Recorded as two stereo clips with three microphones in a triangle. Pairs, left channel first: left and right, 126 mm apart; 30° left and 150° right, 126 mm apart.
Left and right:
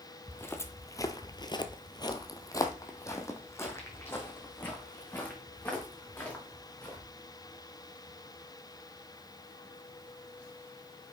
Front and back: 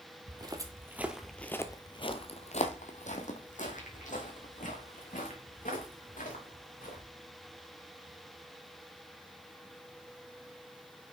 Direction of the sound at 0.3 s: 160° left.